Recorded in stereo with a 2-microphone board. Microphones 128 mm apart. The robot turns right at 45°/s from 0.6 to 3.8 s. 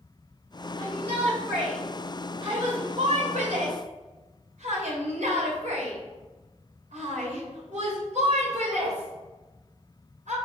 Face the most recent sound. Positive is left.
turn(degrees=-80)